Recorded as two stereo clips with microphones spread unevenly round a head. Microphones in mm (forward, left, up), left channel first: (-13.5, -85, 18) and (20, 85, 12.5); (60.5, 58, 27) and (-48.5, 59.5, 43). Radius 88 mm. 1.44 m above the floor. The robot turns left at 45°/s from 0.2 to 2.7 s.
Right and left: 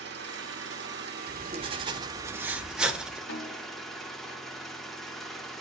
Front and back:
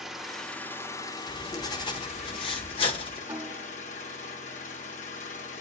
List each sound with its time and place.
0.0 s an engine running: 100° left, 1.5 m; by 5.6 s 15° right, 1.5 m
1.3 s writing: 55° left, 1.2 m; by 3.2 s 5° right, 1.2 m
3.3 s a snare drum: 105° right, 4 m